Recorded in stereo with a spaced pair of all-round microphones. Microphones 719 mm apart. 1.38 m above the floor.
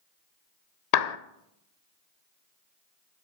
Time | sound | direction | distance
0.9 | a clap | 65° left (ahead or behind) | 0.6 m